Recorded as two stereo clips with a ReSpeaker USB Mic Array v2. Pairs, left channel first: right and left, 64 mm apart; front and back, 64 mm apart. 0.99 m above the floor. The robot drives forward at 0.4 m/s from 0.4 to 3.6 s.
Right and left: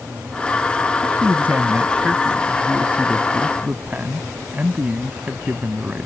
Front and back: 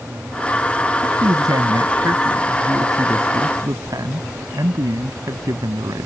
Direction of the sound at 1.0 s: 155° left.